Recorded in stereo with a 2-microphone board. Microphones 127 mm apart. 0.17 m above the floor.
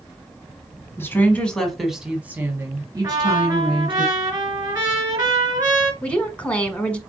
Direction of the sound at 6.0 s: 10° left (ahead or behind).